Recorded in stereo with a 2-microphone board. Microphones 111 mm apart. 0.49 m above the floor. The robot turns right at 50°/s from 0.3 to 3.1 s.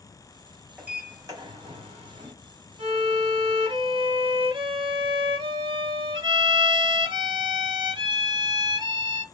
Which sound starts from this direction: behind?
A sliding door, at 0.8 s.